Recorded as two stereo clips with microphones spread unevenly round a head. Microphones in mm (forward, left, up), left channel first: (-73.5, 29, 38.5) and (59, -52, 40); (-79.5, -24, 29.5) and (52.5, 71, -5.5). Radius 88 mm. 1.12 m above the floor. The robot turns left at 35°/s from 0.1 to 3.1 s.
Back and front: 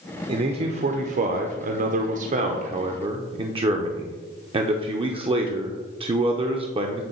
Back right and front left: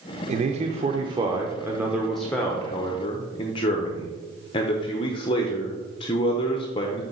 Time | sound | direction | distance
0.3 | a man speaking | 20° left | 0.7 m